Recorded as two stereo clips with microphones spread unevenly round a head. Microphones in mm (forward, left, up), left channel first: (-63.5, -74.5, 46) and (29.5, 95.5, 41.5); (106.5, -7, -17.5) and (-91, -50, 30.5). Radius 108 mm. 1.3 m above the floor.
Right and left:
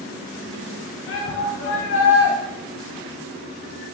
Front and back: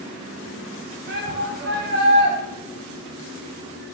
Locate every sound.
1.1 s a shout: 130° right, 0.9 m